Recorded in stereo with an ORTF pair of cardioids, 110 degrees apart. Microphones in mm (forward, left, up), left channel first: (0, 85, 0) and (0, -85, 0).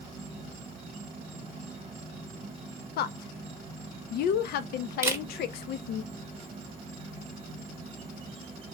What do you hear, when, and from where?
0.0 s an insect: 35° right, 1.1 m
3.0 s a woman speaking: 70° left, 0.6 m
5.0 s a camera shutter: 15° right, 0.9 m